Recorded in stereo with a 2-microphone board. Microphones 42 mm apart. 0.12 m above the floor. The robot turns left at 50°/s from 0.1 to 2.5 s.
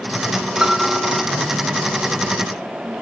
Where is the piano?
165° right; by 1.3 s 160° left.